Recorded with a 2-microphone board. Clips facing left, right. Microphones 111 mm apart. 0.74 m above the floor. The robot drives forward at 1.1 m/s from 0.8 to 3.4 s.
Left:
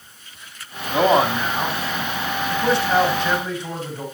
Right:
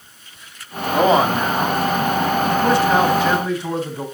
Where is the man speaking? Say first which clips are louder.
Right 2 dB; 5° left (ahead or behind), 1.5 m; by 4.0 s centre (ahead or behind), 4 m.